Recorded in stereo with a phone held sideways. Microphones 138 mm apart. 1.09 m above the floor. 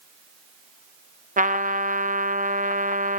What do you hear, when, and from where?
1.4 s a trumpet: 70° right (ahead or behind), 0.6 m